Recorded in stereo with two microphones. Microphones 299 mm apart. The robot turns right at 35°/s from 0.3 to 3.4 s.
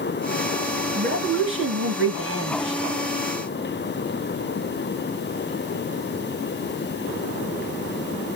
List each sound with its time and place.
0.9 s a woman speaking: 135° right, 2 m; by 2.8 s 70° right, 2 m